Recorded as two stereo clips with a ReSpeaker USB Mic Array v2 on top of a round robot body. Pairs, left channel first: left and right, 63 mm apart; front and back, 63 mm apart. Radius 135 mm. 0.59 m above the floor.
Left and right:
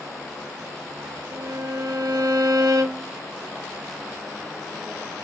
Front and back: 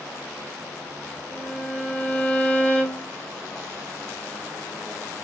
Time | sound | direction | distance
1.3 | a violin | 70° right | 3.5 m